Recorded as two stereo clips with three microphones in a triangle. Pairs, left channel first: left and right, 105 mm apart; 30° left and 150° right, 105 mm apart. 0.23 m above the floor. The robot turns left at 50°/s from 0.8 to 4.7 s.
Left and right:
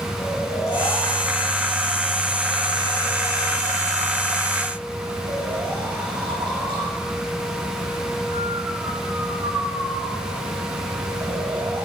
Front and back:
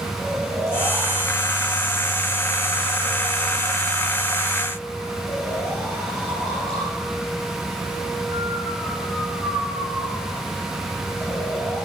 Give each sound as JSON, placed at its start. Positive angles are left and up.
{"t": 0.2, "sound": "snoring", "azimuth_deg": 145, "distance_m": 8.0}